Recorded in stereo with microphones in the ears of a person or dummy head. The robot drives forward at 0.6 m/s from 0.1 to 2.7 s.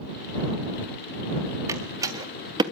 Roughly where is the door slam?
Centre.